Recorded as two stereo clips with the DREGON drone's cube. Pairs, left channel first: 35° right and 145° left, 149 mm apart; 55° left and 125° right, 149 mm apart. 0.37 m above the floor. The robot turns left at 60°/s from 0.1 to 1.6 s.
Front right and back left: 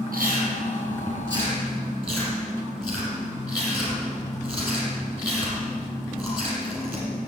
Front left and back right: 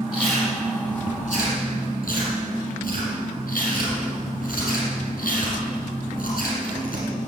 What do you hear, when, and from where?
0.1 s chewing: 155° left, 6 m; by 7.1 s 65° left, 6 m